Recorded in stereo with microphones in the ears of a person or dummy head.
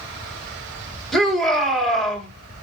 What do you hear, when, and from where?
1.1 s a shout: 5° left (ahead or behind), 1.4 m